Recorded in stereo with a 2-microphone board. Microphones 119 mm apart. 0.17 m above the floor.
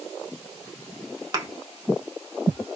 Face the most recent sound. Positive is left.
turn(degrees=-35)  # may be behind; listen again after turning